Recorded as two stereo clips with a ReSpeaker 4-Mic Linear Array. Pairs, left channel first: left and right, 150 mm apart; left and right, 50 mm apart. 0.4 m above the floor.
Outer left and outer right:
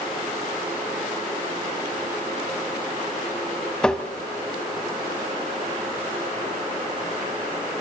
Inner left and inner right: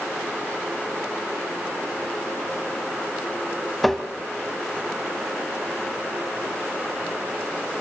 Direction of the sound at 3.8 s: 5° left (ahead or behind).